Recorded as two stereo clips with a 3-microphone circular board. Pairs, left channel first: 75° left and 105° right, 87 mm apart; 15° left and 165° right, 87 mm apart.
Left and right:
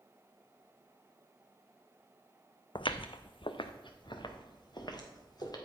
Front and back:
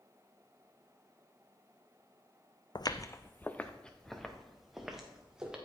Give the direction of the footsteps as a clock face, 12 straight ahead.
10 o'clock.